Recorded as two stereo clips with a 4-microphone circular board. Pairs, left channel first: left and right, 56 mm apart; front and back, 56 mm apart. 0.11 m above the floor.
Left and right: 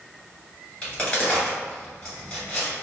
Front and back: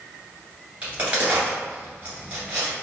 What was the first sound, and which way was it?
A crack, 140° left.